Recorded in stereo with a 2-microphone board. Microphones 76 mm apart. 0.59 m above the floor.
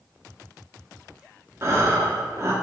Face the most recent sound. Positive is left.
turn(degrees=-40)  # may be behind; listen again after turning